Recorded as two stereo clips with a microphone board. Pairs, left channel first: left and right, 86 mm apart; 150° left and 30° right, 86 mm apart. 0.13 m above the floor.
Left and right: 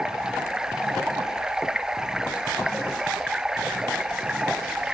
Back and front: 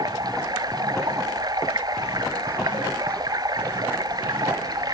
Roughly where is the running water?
Ahead.